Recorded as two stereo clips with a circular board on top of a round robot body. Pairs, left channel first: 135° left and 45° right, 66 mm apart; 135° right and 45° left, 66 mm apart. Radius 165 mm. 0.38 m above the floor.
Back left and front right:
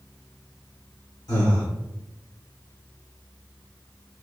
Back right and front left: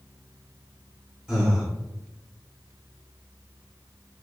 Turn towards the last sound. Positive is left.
turn(degrees=130)